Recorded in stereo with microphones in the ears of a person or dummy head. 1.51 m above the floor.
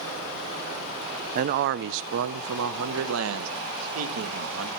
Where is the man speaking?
40° right (ahead or behind), 0.5 m; by 4.7 s 80° right, 2.0 m.